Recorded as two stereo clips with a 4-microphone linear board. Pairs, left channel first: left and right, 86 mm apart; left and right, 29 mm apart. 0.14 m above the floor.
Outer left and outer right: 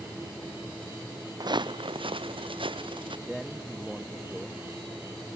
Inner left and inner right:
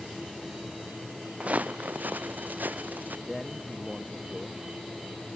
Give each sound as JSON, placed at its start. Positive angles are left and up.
{"t": 1.4, "sound": "footsteps", "side_deg": -50}
{"t": 3.3, "sound": "a man speaking", "side_deg": 0}